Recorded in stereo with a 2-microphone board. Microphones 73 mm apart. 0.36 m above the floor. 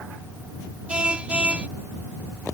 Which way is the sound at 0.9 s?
15° right (ahead or behind).